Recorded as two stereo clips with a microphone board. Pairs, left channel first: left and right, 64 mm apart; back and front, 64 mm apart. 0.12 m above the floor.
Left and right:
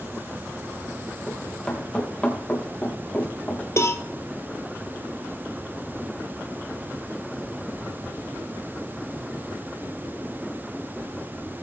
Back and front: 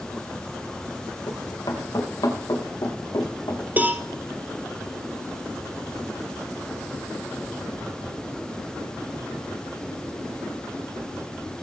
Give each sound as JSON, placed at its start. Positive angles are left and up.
{"t": 1.3, "sound": "running footsteps", "azimuth_deg": 165, "distance_m": 4.0}
{"t": 3.8, "sound": "a cowbell", "azimuth_deg": 60, "distance_m": 1.4}